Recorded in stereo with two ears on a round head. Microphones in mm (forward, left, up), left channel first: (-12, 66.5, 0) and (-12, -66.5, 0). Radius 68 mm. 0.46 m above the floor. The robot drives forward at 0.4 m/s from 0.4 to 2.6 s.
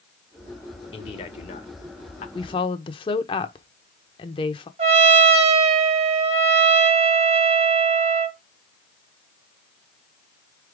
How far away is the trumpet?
About 1.4 m.